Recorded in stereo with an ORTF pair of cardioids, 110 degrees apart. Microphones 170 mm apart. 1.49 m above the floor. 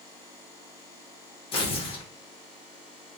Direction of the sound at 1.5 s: 35° left.